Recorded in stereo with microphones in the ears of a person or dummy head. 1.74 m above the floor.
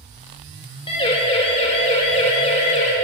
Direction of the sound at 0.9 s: 30° left (ahead or behind).